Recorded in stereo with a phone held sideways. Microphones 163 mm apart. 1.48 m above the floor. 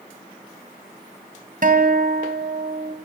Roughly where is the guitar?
Right.